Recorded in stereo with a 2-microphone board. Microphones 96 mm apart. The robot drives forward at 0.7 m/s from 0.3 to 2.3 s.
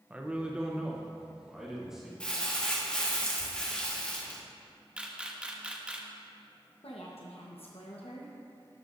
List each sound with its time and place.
0.1 s a man speaking: 15° right (ahead or behind), 0.6 m; by 2.1 s 5° right (ahead or behind), 1.8 m
2.2 s crumpling: 10° left (ahead or behind), 1.1 m
5.0 s a camera shutter: 10° right (ahead or behind), 0.7 m
6.8 s a woman speaking: 85° left, 1.0 m